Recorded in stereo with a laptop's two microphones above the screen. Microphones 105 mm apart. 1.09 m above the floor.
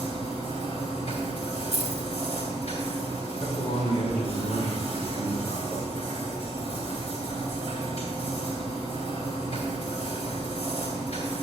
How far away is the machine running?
About 3 m.